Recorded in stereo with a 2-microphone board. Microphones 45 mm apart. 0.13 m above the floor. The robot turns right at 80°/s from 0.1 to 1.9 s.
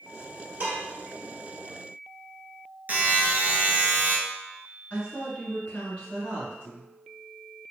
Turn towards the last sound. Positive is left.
turn(degrees=30)  # may be behind; listen again after turning